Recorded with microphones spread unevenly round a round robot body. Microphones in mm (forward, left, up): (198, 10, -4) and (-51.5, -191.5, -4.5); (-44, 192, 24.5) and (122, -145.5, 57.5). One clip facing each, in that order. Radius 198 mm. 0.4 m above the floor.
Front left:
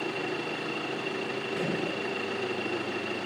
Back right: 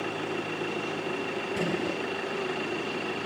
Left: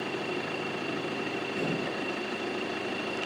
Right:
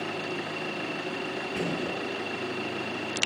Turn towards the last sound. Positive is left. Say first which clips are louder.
# back right 2 dB, right 2 dB
turn(degrees=-85)